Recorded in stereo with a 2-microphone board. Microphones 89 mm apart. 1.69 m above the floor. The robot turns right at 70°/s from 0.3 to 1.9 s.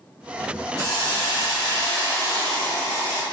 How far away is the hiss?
About 1.5 m.